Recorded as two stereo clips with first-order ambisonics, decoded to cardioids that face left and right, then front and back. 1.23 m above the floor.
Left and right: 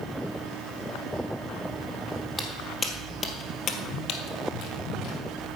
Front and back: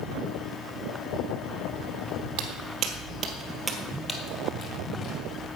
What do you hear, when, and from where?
2.4 s footsteps: straight behind, 1.9 m; by 5.3 s 45° left, 2.5 m